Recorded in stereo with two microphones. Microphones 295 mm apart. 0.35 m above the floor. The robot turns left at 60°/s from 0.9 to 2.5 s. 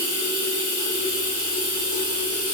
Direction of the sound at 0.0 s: 25° right.